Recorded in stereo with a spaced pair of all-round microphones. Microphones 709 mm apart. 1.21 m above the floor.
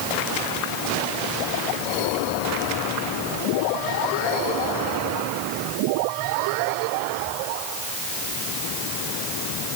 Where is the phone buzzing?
I don't hear a phone buzzing.